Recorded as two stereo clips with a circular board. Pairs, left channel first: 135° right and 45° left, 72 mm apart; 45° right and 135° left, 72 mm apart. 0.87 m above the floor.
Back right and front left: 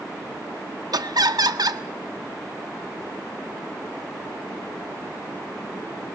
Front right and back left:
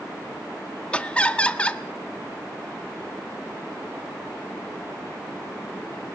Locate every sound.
0.9 s laughter: 30° left, 1.3 m